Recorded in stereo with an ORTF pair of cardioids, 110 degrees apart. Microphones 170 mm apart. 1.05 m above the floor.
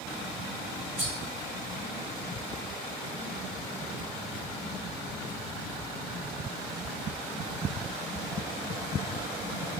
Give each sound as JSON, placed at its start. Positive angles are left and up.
{"t": 1.0, "sound": "cutlery clinking", "azimuth_deg": -10, "distance_m": 1.2}